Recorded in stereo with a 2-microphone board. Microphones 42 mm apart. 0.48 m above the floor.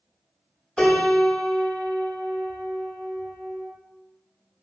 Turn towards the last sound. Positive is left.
turn(degrees=15)  # may be behind; listen again after turning